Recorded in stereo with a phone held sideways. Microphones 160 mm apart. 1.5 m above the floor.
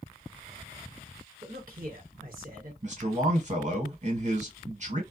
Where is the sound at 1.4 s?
65° right (ahead or behind), 1.4 m.